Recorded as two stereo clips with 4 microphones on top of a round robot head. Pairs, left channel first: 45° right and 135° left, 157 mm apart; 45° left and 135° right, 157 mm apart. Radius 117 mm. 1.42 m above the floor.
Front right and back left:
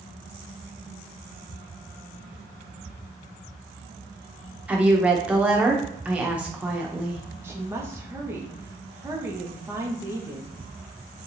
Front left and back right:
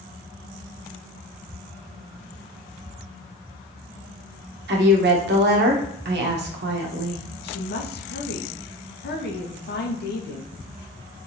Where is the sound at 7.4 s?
60° left, 1.2 m.